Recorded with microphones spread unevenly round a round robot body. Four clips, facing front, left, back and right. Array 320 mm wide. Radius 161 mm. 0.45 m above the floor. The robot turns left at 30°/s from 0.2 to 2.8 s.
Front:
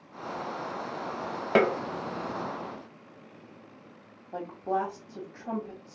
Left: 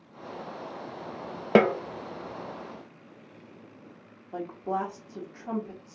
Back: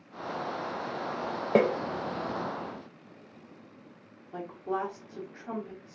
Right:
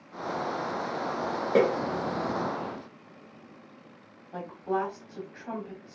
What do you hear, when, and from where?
1.6 s a snare drum: 65° left, 0.6 m; by 1.8 s 60° left, 0.6 m
4.3 s a woman speaking: 20° left, 1.3 m